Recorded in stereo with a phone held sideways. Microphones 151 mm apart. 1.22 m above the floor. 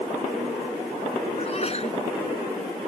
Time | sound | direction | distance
1.4 | a sneeze | 45° left (ahead or behind) | ?